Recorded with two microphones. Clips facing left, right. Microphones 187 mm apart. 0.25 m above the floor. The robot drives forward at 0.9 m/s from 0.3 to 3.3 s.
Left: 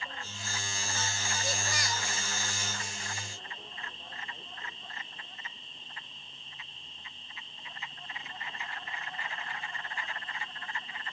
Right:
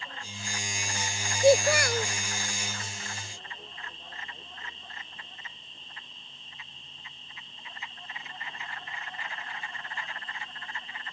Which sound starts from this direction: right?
A child speaking, at 1.4 s.